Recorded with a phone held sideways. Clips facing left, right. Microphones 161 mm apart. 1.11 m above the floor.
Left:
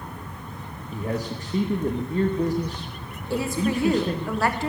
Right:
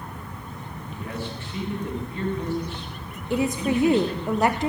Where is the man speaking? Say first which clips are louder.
Left 5 dB; 40° left (ahead or behind), 1.0 m.